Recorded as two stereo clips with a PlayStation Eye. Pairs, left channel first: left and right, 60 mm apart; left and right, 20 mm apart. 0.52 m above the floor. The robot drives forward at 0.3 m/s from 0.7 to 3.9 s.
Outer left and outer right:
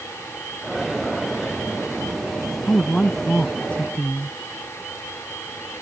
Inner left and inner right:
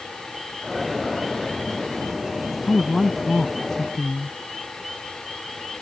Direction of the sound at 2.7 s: 20° left (ahead or behind).